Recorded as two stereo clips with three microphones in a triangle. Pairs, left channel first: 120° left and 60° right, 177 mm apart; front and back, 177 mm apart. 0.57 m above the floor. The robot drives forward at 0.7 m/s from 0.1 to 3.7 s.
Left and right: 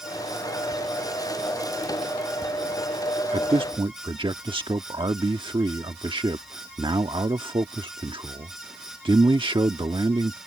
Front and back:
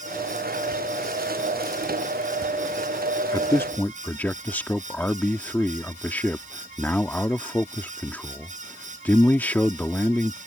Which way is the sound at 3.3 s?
50° right.